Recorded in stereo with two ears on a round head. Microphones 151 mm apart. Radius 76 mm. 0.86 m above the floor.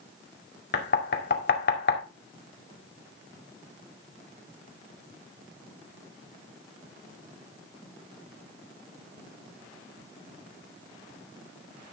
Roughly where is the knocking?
Left.